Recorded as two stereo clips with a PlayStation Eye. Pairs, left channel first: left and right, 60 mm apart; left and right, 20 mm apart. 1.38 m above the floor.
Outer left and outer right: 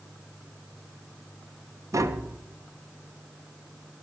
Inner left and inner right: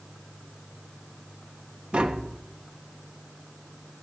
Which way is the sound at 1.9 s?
60° right (ahead or behind).